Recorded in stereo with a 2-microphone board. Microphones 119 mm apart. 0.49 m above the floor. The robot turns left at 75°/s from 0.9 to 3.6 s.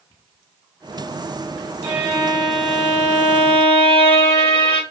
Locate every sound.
1.8 s a violin: 120° right, 2.5 m; by 4.8 s 110° left, 2.5 m